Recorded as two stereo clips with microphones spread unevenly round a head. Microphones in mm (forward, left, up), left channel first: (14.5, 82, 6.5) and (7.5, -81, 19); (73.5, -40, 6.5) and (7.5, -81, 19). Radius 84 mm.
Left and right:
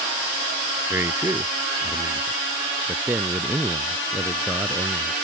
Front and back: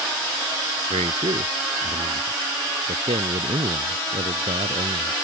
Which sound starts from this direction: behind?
A man speaking, at 0.9 s.